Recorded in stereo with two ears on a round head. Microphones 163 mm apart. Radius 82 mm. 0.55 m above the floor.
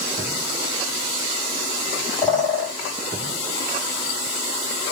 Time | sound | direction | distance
2.2 | a bird | centre (ahead or behind) | 1.8 m